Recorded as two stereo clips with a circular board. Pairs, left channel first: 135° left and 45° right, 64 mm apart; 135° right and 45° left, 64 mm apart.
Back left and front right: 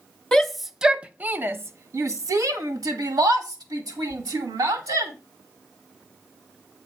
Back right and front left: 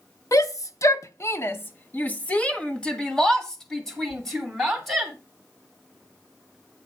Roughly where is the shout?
Behind right.